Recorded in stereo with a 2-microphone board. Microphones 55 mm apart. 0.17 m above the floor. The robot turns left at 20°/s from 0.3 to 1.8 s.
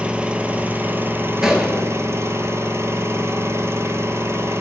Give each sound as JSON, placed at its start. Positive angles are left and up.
{"t": 0.0, "sound": "an engine running", "azimuth_deg": -20, "distance_m": 0.9}
{"t": 1.4, "sound": "a gunshot", "side_deg": -10, "distance_m": 1.2}